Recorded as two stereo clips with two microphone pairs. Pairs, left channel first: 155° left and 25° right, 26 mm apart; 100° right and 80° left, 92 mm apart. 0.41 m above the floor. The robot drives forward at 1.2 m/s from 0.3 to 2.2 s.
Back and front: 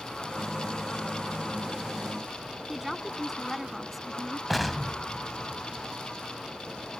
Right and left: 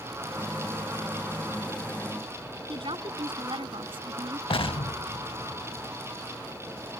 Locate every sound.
2.7 s a woman speaking: 60° left
4.5 s an explosion: 115° right